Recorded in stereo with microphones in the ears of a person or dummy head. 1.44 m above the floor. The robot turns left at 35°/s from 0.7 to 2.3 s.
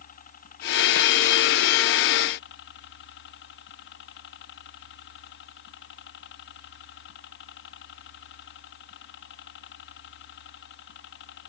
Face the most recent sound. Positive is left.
turn(degrees=75)